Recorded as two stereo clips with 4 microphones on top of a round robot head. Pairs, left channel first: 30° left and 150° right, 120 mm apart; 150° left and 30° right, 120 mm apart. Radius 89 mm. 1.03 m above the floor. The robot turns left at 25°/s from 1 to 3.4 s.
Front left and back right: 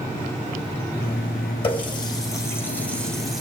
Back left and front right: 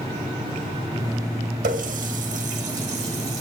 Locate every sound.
1.6 s a running tap: 20° right, 3 m; by 3.4 s 60° right, 3 m